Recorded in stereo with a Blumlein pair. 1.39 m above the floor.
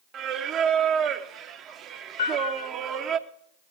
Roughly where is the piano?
Ahead left.